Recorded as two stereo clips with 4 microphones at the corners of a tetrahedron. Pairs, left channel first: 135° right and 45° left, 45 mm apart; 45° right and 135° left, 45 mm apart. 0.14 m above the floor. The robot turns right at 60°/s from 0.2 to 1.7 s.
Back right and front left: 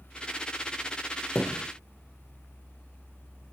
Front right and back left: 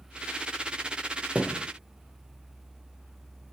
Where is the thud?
165° right, 1.1 m; by 1.7 s 145° right, 1.1 m.